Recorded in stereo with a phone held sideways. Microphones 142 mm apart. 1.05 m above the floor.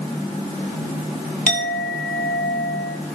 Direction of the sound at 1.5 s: 70° left (ahead or behind).